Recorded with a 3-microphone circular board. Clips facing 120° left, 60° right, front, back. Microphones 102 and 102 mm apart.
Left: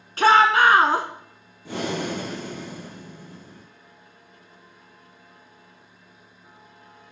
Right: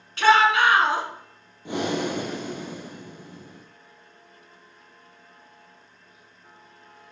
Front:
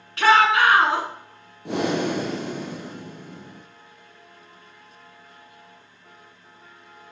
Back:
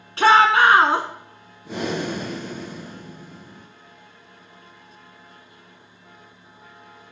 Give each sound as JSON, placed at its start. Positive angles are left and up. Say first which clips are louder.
{"t": 0.2, "sound": "a shout", "louder": "left 2 dB, back 2 dB", "azimuth_deg": 140, "distance_m": 1.3}
{"t": 1.6, "sound": "breathing", "louder": "right 2 dB, front 3 dB", "azimuth_deg": 10, "distance_m": 2.0}